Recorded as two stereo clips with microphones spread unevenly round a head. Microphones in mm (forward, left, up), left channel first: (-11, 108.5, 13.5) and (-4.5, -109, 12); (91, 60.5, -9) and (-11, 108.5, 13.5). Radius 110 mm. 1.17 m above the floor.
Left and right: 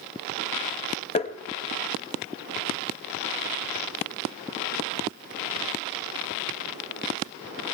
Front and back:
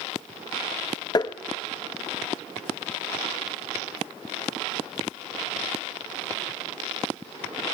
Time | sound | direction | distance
1.1 | tapping | 35° left | 0.7 m